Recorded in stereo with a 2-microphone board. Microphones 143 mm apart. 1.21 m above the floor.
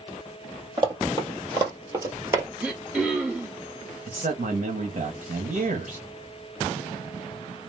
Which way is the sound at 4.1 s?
65° right (ahead or behind).